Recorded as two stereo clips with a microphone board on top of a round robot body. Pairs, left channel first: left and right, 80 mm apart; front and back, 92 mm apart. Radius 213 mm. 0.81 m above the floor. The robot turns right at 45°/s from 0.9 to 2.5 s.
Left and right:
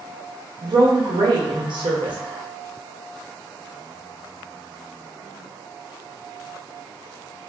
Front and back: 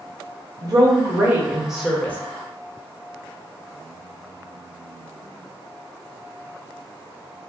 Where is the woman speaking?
130° right, 0.9 m; by 2.2 s 70° right, 0.9 m.